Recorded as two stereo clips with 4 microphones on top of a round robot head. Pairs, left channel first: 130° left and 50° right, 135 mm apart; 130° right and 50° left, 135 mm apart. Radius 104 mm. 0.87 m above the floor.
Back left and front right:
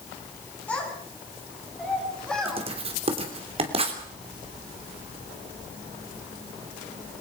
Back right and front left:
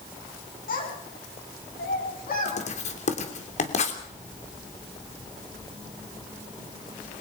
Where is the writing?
95° right, 3 m.